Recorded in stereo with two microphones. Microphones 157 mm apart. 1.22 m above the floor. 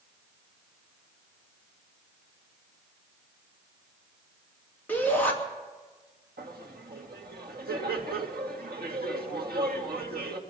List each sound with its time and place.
4.9 s a shout: 10° left (ahead or behind), 2.5 m
6.4 s laughter: 85° right, 1.7 m